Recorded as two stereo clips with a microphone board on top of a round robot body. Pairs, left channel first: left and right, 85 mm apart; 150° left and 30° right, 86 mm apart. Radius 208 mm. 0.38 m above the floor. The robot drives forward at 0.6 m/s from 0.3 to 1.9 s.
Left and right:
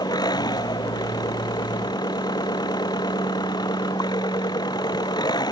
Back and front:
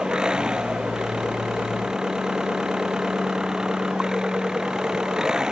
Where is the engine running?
50° left.